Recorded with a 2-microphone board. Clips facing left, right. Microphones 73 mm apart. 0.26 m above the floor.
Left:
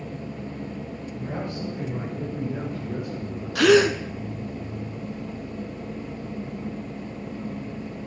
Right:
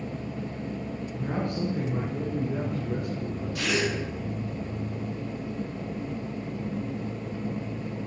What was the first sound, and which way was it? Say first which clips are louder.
A man speaking: right 2 dB; 65° right (ahead or behind).